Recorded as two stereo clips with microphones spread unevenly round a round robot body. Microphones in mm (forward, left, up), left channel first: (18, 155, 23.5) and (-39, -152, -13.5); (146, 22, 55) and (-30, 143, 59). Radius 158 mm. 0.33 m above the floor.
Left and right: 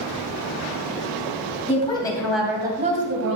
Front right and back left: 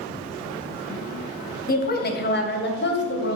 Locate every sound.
1.7 s a woman speaking: 5° left, 2.5 m; by 3.4 s 65° right, 2 m